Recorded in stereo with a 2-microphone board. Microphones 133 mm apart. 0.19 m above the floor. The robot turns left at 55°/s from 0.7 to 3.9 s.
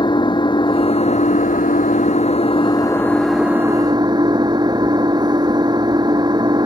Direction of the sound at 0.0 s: 145° left.